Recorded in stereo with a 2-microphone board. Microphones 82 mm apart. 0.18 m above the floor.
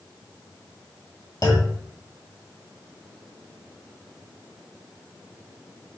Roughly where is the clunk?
Left.